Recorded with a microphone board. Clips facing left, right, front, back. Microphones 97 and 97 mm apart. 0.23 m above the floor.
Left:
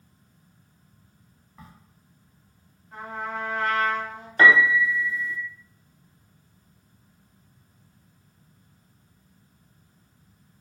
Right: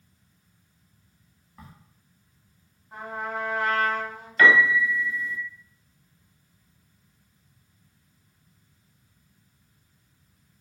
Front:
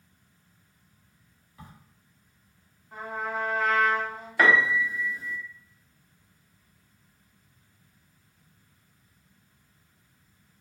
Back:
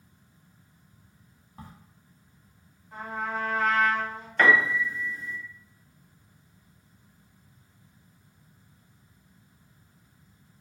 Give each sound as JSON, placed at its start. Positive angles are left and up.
{"t": 1.6, "sound": "a crack", "azimuth_deg": 180, "distance_m": 0.6}
{"t": 2.9, "sound": "a trumpet", "azimuth_deg": -80, "distance_m": 1.3}
{"t": 4.4, "sound": "a piano", "azimuth_deg": 75, "distance_m": 0.6}